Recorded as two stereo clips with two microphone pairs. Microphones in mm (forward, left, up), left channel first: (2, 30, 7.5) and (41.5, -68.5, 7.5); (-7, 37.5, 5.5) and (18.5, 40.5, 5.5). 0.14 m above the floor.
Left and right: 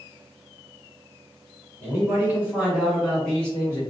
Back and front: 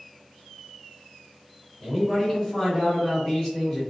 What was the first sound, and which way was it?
A man speaking, 110° right.